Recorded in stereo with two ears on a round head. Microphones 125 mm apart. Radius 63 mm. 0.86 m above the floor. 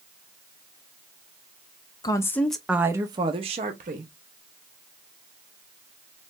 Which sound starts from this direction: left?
A woman speaking, at 2.0 s.